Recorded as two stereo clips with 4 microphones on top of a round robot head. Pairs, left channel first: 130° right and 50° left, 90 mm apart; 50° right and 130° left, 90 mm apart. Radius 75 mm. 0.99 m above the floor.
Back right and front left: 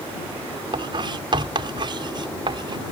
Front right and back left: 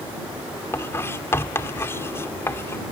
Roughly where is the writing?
Ahead.